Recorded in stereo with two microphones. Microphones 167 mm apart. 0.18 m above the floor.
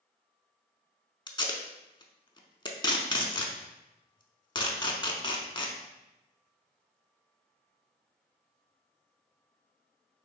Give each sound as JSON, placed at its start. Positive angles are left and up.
{"t": 1.3, "sound": "tape being pulled", "side_deg": 30, "distance_m": 0.6}